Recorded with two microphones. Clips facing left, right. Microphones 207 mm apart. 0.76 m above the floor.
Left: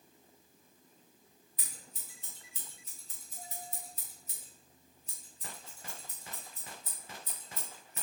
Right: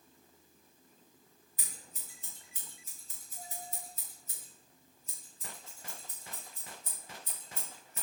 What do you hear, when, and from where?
1.6 s scissors: 45° right (ahead or behind), 1.3 m